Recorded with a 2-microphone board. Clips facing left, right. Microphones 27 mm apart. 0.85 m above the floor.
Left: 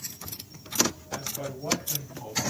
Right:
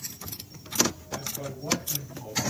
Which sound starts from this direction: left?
A man speaking, at 1.1 s.